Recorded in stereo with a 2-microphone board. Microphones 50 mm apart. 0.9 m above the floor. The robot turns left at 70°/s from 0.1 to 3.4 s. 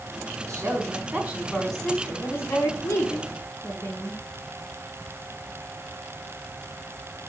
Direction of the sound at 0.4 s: 100° right.